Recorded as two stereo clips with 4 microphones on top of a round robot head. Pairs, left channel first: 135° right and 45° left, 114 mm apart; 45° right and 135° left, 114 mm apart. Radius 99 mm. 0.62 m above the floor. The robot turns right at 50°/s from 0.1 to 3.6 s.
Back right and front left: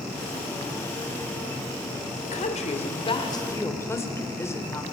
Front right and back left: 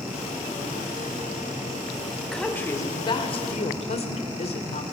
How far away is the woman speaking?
About 3 m.